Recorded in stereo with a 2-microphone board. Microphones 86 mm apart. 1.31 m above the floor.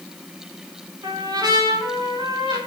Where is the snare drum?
I don't hear a snare drum.